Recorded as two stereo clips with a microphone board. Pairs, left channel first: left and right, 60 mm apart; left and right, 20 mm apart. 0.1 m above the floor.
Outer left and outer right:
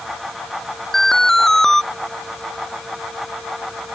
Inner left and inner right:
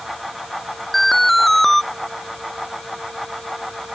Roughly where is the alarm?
Centre.